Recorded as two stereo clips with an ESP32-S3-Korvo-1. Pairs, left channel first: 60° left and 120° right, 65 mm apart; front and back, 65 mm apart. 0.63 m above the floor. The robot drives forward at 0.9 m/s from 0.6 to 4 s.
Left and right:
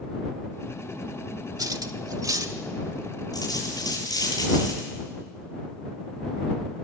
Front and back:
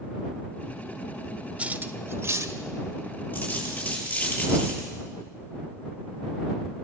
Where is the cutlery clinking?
110° right, 1.0 m; by 2.6 s 145° right, 1.6 m.